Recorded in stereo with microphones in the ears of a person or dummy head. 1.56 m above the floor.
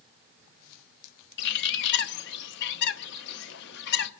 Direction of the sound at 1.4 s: 65° left (ahead or behind).